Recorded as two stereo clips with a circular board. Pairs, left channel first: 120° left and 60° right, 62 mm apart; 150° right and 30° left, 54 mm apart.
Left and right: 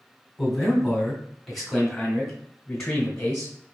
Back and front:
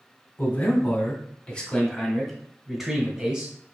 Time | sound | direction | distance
0.4 | a man speaking | 150° right | 1.8 m